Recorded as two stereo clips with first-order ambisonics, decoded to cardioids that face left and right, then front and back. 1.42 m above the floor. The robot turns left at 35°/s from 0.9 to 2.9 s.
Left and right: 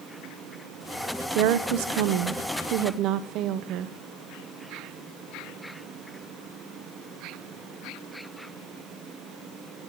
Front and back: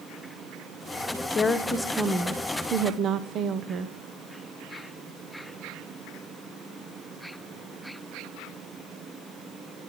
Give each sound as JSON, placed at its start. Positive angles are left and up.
{"t": 1.4, "sound": "a woman speaking", "azimuth_deg": -70, "distance_m": 0.8}